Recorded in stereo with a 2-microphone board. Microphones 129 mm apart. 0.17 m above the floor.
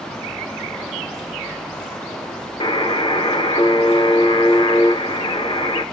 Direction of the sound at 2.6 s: 40° left (ahead or behind).